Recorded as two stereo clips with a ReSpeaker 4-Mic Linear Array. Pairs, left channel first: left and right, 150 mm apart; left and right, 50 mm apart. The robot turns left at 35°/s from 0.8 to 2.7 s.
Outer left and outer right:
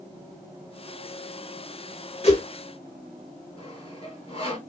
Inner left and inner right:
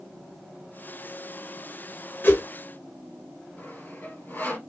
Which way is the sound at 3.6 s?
40° left (ahead or behind).